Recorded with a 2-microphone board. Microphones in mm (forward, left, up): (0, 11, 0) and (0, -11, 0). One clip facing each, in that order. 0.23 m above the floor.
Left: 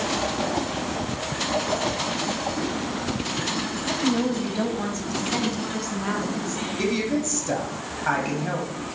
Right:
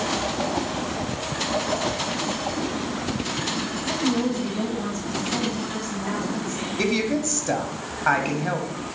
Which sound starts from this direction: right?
A woman speaking, at 6.8 s.